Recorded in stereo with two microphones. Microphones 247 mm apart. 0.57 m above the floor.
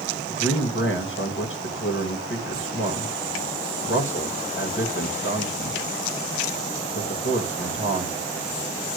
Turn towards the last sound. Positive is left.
turn(degrees=55)  # may be behind; listen again after turning